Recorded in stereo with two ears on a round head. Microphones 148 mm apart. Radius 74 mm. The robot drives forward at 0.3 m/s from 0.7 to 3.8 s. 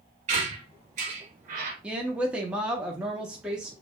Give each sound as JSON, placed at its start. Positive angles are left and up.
{"t": 0.3, "sound": "a squeak", "side_deg": -45, "distance_m": 1.1}
{"t": 1.8, "sound": "a woman speaking", "side_deg": -5, "distance_m": 0.6}